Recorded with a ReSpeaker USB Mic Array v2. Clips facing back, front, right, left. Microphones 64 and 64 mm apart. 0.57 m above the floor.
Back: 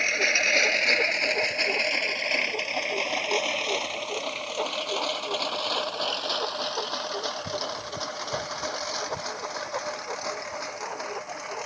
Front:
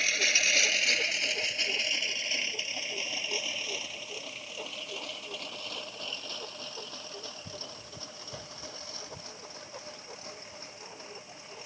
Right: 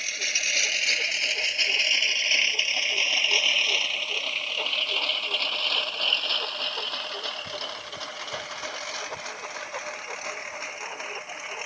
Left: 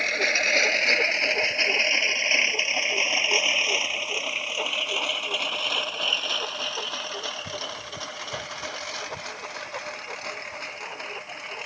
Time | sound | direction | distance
0.0 | a lawn mower | 125° left | ?